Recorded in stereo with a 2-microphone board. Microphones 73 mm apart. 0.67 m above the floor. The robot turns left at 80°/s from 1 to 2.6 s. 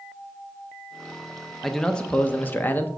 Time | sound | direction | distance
1.6 | a man speaking | centre (ahead or behind) | 0.6 m